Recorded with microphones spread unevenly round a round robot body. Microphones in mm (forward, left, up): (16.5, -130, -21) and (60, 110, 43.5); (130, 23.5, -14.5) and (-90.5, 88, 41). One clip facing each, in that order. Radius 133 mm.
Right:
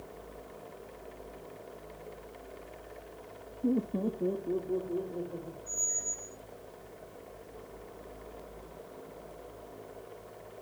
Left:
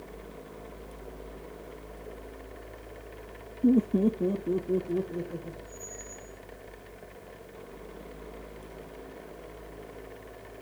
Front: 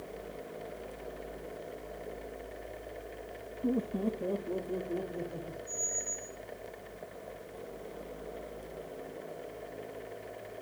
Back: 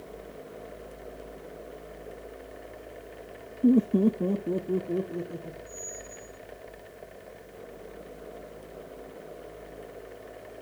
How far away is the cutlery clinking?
No cutlery clinking in this recording.